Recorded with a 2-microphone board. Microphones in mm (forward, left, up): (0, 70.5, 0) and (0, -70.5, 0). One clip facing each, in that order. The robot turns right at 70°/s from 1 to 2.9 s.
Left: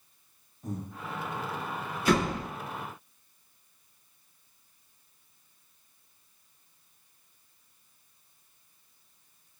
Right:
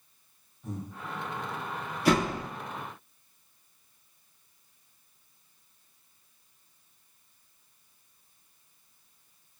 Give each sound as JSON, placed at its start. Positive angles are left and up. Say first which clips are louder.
{"t": 0.6, "sound": "breathing", "louder": "left 1 dB", "side_deg": 40, "distance_m": 0.6}
{"t": 2.0, "sound": "a door slam", "louder": "right 1 dB", "side_deg": -70, "distance_m": 0.9}